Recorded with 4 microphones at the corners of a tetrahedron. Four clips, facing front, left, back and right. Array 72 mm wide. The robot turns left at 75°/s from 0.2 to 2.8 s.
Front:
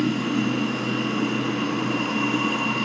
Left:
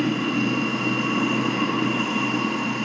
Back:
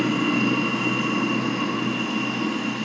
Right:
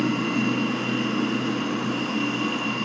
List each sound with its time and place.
0.0 s running water: 160° right, 2.5 m; by 2.9 s 5° left, 2.5 m